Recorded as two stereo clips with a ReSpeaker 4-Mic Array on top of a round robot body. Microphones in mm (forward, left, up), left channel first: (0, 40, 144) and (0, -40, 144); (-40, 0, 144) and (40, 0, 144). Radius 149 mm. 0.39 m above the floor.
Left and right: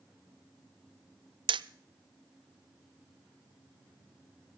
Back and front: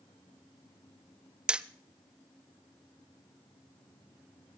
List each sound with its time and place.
1.5 s hammering: 80° right, 0.6 m